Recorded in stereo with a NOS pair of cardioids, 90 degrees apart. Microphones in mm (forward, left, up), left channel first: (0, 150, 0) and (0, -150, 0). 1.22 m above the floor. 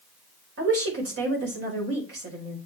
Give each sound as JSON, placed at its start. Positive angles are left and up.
{"t": 0.6, "sound": "a woman speaking", "azimuth_deg": -50, "distance_m": 5.0}